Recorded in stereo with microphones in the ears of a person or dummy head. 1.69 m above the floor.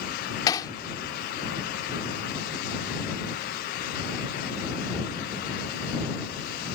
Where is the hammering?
20° left (ahead or behind).